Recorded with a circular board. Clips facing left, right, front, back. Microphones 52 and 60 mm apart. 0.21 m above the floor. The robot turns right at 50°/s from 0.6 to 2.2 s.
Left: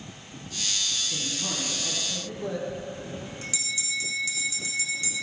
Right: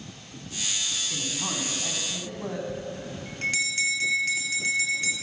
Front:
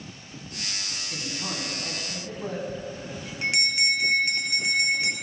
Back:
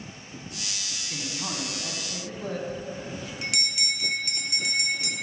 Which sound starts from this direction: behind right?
A man speaking, at 1.1 s.